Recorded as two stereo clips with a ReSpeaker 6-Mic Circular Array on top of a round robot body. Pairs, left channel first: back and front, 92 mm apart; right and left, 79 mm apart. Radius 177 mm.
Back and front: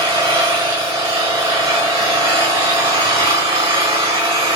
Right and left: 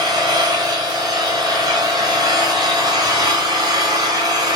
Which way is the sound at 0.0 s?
50° left.